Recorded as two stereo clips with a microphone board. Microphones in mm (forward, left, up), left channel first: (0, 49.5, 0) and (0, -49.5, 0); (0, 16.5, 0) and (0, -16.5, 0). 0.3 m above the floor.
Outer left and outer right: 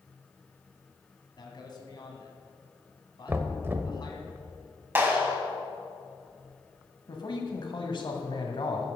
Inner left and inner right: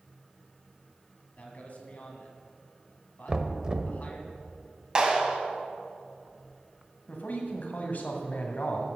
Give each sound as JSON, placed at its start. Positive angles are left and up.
{"t": 1.4, "sound": "a man speaking", "side_deg": 45, "distance_m": 1.8}
{"t": 3.3, "sound": "knocking", "side_deg": -20, "distance_m": 0.7}
{"t": 5.0, "sound": "a clap", "side_deg": -20, "distance_m": 1.5}
{"t": 7.1, "sound": "a man speaking", "side_deg": 55, "distance_m": 1.6}